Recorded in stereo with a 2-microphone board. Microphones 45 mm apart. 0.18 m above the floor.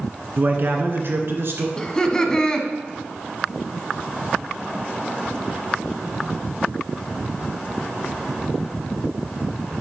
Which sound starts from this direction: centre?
Laughter, at 1.8 s.